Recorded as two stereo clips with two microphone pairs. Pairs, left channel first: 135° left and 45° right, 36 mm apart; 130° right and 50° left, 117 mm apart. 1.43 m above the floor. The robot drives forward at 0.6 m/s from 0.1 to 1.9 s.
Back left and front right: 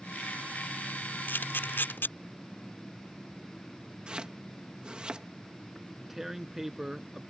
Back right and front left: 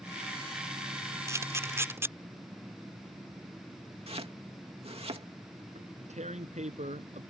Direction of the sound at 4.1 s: 15° left.